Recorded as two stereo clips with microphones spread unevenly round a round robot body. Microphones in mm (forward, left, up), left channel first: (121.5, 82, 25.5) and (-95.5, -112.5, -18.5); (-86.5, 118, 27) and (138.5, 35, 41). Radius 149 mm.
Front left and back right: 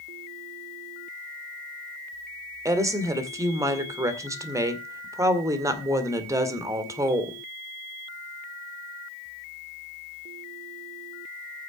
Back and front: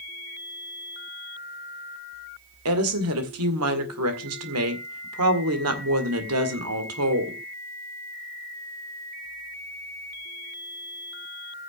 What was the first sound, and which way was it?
A woman speaking, 60° right.